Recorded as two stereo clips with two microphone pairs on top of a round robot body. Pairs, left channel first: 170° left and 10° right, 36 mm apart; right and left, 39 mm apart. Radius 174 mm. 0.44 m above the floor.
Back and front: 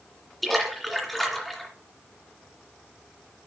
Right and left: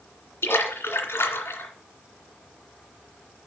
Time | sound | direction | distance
0.4 | a splash | 100° right | 2 m